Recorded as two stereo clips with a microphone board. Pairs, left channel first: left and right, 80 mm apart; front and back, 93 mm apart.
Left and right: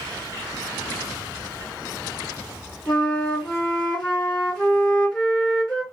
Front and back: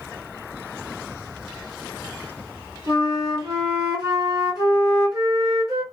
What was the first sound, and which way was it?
A flute, 165° left.